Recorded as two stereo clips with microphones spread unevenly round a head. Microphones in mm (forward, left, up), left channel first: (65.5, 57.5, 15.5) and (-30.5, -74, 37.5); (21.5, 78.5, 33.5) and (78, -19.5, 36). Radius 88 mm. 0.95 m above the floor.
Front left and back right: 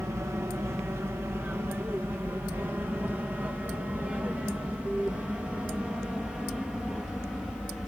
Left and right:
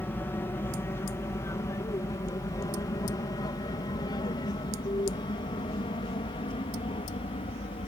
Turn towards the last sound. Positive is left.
turn(degrees=140)